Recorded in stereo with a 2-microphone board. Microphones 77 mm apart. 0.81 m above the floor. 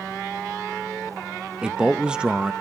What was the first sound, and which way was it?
A man speaking, 15° right (ahead or behind).